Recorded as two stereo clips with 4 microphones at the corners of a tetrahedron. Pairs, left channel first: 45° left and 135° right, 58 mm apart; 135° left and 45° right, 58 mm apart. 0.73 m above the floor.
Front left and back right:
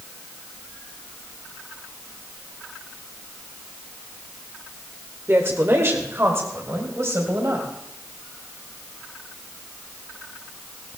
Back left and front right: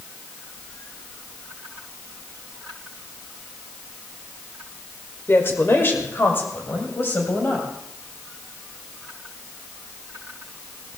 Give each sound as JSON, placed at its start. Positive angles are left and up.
{"t": 5.3, "sound": "a woman speaking", "azimuth_deg": 180, "distance_m": 2.0}